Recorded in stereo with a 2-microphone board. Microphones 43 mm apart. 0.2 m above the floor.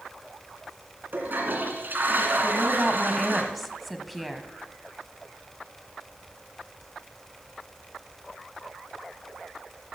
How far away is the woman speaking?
About 1.1 m.